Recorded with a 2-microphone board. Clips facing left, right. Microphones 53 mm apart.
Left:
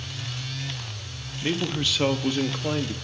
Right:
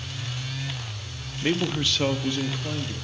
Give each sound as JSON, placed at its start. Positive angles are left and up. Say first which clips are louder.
{"t": 1.4, "sound": "a man speaking", "louder": "right 2 dB", "side_deg": -20, "distance_m": 0.8}